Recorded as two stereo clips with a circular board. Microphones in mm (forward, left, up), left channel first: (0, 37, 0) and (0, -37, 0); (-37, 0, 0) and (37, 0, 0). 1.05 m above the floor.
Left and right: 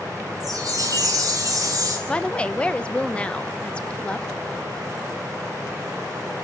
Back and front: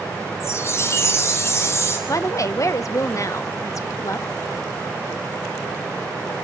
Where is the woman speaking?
160° left, 1.0 m.